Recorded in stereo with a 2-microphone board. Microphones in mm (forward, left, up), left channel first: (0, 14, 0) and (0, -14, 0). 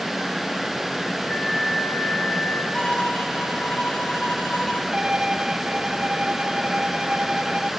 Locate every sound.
1.3 s a flute: 50° left (ahead or behind), 5.5 m
2.7 s a violin: 35° left (ahead or behind), 4.5 m
4.9 s a violin: 25° right (ahead or behind), 1.7 m